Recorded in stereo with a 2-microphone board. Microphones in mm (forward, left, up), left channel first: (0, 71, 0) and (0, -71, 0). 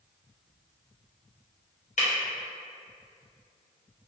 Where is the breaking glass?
55° left (ahead or behind), 0.7 m.